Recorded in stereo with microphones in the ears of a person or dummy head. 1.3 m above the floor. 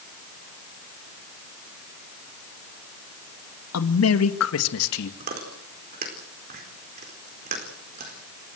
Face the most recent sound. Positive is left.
turn(degrees=-45)  # may be behind; listen again after turning